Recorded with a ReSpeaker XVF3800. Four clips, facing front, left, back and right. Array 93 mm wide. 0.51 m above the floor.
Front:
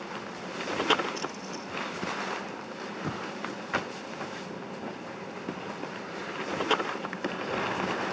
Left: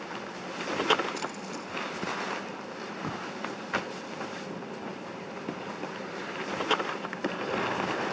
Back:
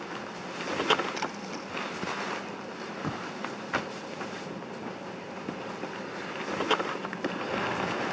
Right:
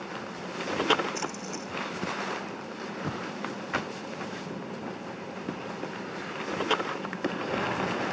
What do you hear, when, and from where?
1.1 s a splash: 160° right